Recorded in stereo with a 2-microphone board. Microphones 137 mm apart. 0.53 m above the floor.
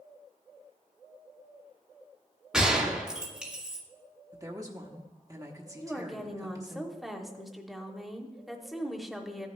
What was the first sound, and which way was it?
A gunshot, 5° right (ahead or behind).